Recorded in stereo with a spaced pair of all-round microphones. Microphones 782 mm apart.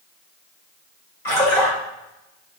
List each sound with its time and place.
1.2 s a splash: 60° left (ahead or behind), 2.5 m